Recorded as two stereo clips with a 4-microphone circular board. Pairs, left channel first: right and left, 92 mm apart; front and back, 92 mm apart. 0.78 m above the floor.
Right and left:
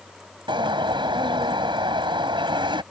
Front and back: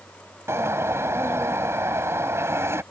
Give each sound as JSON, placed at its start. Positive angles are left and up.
{"t": 0.5, "sound": "a bird", "azimuth_deg": 120}